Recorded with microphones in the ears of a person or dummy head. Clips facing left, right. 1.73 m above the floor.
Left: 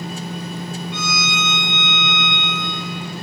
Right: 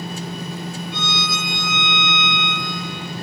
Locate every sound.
0.9 s a violin: 30° right (ahead or behind), 3.5 m